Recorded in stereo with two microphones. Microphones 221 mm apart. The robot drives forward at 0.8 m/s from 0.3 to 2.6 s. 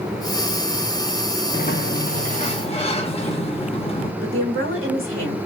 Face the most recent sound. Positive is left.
turn(degrees=-75)  # may be behind; listen again after turning